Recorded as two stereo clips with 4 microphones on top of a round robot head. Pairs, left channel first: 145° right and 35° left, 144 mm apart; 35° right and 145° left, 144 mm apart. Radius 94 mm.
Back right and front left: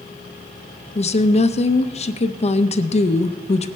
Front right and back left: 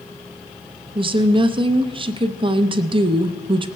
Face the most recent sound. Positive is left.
turn(degrees=-170)